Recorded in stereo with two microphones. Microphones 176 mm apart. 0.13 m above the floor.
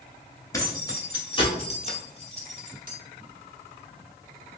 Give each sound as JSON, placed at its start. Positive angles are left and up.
{"t": 0.5, "sound": "keys jangling", "side_deg": 20, "distance_m": 1.2}